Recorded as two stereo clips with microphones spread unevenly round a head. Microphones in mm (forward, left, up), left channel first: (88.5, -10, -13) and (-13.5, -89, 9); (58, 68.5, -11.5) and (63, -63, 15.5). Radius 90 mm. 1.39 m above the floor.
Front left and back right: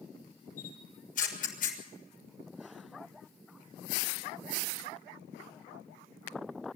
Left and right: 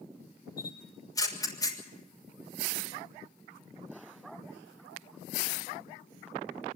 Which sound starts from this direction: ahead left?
A camera shutter, at 0.6 s.